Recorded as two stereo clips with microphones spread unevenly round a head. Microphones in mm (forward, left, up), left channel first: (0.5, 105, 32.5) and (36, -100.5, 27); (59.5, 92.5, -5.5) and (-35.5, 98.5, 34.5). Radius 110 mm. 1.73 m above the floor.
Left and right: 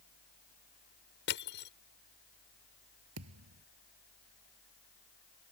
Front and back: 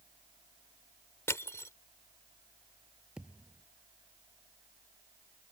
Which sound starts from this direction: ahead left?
Crushing, at 1.3 s.